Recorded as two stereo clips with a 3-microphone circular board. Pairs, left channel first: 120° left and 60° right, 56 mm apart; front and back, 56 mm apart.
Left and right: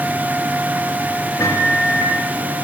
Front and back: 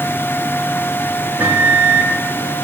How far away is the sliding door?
I don't hear a sliding door.